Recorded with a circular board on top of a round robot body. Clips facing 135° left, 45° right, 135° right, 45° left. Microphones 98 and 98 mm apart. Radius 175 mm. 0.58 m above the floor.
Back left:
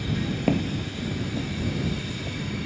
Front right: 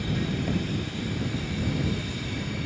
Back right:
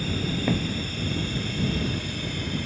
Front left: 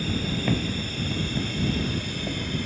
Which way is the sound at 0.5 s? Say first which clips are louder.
Back left 4 dB, front left 1 dB; 140° left.